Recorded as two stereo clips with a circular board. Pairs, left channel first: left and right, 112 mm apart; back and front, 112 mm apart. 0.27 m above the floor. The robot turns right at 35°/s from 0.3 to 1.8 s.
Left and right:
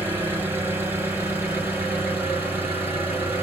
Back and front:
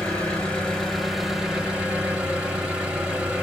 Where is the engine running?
115° right, 1.2 m; by 3.4 s 65° right, 1.2 m.